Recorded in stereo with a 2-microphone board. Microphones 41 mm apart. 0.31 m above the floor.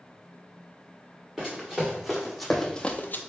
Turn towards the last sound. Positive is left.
turn(degrees=55)  # may be behind; listen again after turning